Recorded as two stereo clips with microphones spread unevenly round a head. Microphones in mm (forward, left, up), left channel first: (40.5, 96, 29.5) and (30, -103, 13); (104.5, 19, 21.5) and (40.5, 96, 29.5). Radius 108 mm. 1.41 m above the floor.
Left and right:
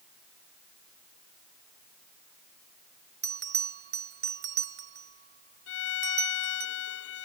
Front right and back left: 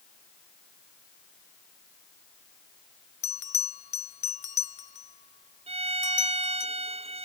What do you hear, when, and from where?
3.2 s a bell: 55° right
5.7 s a violin: 115° left